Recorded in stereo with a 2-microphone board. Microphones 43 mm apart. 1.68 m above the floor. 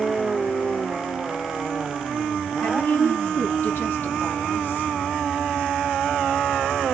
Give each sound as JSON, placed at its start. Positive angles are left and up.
{"t": 2.6, "sound": "a woman speaking", "side_deg": 60, "distance_m": 1.7}